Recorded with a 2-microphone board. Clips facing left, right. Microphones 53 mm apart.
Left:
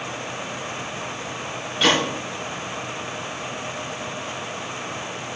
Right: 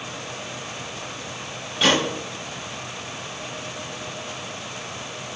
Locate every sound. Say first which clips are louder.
1.8 s a gunshot: even; centre (ahead or behind), 5 m